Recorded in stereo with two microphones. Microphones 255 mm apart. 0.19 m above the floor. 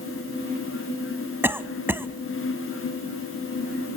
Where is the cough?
10° right (ahead or behind), 1.0 m.